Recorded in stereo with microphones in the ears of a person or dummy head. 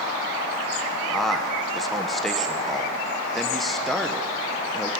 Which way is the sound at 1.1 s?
5° right (ahead or behind).